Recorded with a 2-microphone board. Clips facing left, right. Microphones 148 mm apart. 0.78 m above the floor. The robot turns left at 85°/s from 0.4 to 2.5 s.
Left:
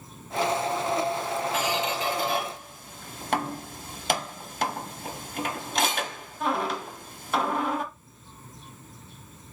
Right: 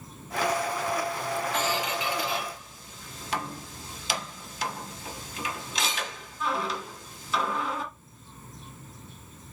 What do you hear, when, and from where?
1.5 s a squeak: 5° left (ahead or behind), 0.9 m; by 7.8 s 55° left (ahead or behind), 0.9 m